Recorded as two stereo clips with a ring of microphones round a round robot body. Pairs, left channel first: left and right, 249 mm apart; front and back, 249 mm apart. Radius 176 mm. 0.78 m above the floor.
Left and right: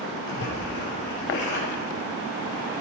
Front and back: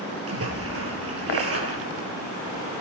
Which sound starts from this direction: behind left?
A splash, at 0.3 s.